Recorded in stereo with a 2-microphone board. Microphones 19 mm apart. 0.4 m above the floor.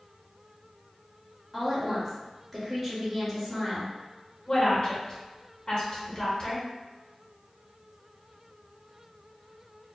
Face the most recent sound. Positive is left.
turn(degrees=35)  # may be behind; listen again after turning